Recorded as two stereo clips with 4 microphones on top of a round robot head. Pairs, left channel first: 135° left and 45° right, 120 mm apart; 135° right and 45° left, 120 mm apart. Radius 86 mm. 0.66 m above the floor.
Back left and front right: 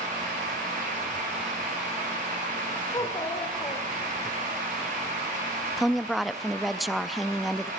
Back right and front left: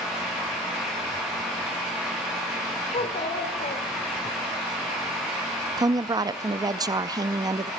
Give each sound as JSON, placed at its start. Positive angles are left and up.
{"t": 2.9, "sound": "a child speaking", "azimuth_deg": -165, "distance_m": 1.4}
{"t": 5.8, "sound": "a woman speaking", "azimuth_deg": 45, "distance_m": 0.6}